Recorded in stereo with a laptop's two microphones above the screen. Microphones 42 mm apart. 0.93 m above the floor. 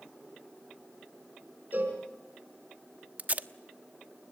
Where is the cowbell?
45° right (ahead or behind), 4.5 m.